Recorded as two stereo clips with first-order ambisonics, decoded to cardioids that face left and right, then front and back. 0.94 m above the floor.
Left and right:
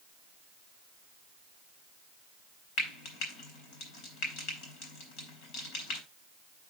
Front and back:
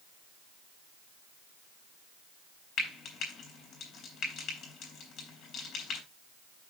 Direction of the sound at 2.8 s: 55° left.